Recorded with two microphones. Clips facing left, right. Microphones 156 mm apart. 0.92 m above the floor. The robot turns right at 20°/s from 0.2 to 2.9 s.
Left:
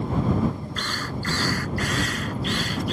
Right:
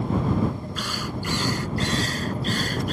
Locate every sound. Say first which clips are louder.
0.8 s a drill: right 1 dB; 175° right; by 2.9 s 130° right